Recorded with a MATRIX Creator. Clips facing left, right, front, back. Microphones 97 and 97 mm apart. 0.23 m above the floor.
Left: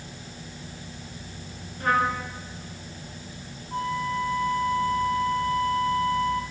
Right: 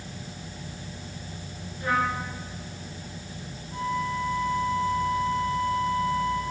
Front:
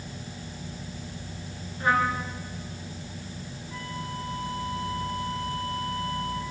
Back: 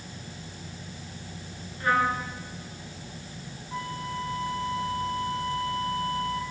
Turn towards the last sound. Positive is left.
turn(degrees=120)